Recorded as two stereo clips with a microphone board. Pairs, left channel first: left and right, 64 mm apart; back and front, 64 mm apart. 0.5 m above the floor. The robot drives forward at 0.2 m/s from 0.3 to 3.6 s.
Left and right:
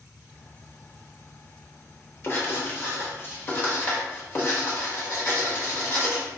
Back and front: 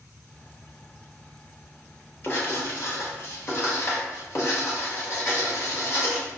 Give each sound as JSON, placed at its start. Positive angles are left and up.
{"t": 2.2, "sound": "writing", "azimuth_deg": 135, "distance_m": 0.9}